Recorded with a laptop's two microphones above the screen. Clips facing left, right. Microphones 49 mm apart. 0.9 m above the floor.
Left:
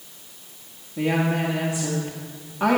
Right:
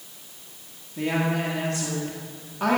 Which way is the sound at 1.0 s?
10° left (ahead or behind).